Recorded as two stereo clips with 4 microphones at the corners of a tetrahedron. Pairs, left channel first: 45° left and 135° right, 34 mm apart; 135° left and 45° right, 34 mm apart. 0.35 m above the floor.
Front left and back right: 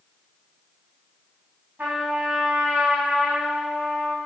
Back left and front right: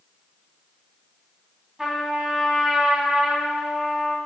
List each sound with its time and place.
1.8 s a trumpet: 130° right, 2.5 m